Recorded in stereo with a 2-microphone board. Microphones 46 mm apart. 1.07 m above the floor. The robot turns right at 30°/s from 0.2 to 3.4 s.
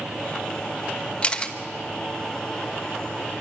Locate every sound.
1.2 s a camera shutter: 25° left (ahead or behind), 1.1 m; by 1.6 s 15° left (ahead or behind), 1.1 m